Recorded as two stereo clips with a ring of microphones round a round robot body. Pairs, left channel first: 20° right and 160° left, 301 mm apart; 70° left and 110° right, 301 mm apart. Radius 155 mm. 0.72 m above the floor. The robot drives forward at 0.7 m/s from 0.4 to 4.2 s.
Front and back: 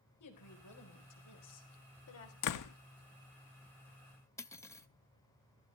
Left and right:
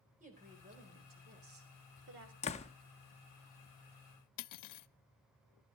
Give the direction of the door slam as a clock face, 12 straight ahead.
12 o'clock.